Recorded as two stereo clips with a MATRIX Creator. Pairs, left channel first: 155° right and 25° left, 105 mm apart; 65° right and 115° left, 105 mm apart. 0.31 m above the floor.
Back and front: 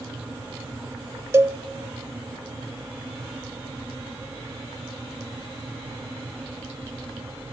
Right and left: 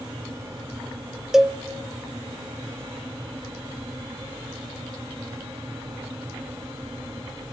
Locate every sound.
1.3 s a cowbell: 30° left, 0.8 m